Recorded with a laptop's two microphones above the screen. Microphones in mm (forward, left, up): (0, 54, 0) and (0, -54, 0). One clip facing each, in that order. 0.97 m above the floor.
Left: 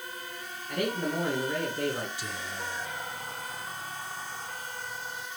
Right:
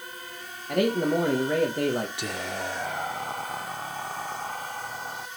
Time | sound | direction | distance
0.7 | a man speaking | 55° right (ahead or behind) | 1.4 m
2.2 | whispering | 60° right (ahead or behind) | 0.5 m